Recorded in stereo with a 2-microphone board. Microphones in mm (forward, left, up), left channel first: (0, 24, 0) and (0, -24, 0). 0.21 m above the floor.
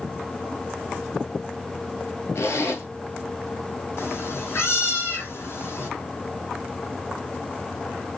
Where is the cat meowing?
60° left (ahead or behind), 1.2 m.